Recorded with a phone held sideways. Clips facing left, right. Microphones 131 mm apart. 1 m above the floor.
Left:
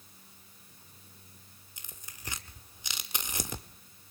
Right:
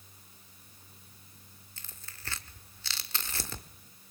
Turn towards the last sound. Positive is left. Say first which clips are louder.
# left 1 dB
turn(degrees=15)  # may be behind; listen again after turning